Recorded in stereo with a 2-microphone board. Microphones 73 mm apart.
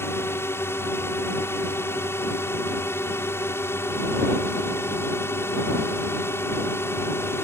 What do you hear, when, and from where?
0.0 s a drone: 35° left (ahead or behind)